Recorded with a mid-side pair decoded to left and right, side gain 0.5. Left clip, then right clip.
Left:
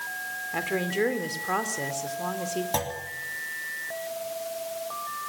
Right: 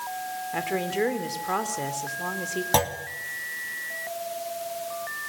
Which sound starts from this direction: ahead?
A woman speaking, at 0.5 s.